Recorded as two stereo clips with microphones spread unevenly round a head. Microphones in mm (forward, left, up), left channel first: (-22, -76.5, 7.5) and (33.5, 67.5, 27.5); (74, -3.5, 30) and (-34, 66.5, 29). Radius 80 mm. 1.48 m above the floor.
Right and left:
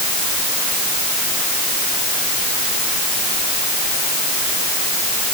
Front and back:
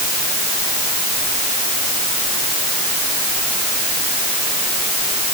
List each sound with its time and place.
Only background noise.